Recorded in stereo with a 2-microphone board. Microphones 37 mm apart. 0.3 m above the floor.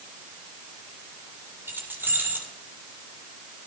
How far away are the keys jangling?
About 7 m.